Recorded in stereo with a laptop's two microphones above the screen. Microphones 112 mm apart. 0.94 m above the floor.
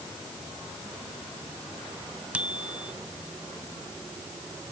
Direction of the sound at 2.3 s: 10° right (ahead or behind).